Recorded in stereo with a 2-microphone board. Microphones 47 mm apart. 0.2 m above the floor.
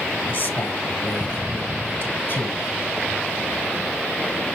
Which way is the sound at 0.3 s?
45° left (ahead or behind).